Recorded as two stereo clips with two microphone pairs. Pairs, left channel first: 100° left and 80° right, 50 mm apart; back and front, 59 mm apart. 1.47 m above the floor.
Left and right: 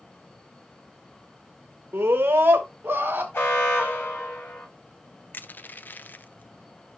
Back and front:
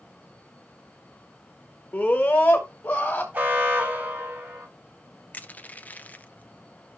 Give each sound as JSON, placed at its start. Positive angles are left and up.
{"t": 1.9, "sound": "a scream", "azimuth_deg": -120, "distance_m": 1.6}
{"t": 3.3, "sound": "an alarm", "azimuth_deg": 60, "distance_m": 5.5}
{"t": 5.3, "sound": "crushing", "azimuth_deg": 125, "distance_m": 0.6}